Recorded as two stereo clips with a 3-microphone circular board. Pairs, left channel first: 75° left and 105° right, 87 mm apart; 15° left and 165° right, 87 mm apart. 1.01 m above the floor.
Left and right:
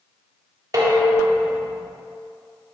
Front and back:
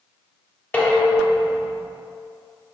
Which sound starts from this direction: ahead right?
Dishes clattering, at 0.7 s.